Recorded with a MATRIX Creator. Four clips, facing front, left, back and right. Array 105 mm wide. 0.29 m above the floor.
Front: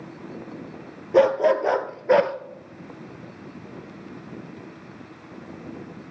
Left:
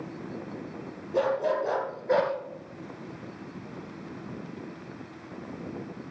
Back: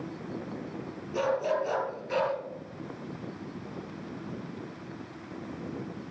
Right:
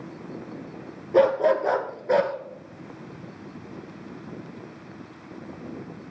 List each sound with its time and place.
1.1 s a dog barking: 30° right, 1.6 m; by 2.3 s 5° right, 1.4 m